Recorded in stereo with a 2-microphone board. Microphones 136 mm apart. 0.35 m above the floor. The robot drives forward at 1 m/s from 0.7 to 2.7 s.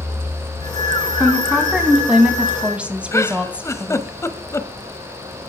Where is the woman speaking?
5° right (ahead or behind), 4 m; by 4.1 s 10° right (ahead or behind), 3 m.